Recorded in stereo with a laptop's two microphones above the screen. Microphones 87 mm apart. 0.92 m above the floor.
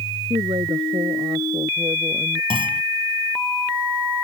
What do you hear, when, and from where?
0.3 s a woman speaking: 70° right (ahead or behind); by 2.4 s 65° right (ahead or behind)
2.5 s a clunk: 80° right